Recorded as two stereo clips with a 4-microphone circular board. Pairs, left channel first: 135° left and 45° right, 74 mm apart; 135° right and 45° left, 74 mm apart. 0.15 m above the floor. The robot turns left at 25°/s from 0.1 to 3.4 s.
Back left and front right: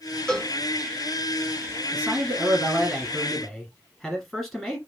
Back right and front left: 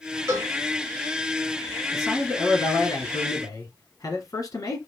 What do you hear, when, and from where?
0.3 s a cowbell: 60° left, 1.5 m; by 0.5 s 55° left, 1.5 m
1.9 s a man speaking: 100° right, 1.9 m; by 4.8 s 135° right, 1.9 m